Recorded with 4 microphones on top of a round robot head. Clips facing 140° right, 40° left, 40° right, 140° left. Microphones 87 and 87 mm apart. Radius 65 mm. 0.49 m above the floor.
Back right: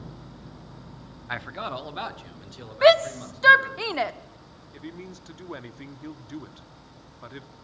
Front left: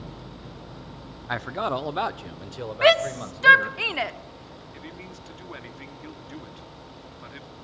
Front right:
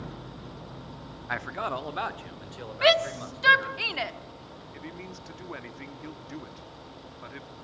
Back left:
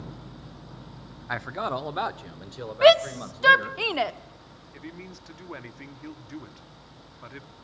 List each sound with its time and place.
1.3 s a man speaking: 65° left, 0.7 m; by 3.8 s 70° left, 2.5 m
2.8 s a shout: 160° left, 1.0 m
4.7 s a man speaking: 135° right, 0.8 m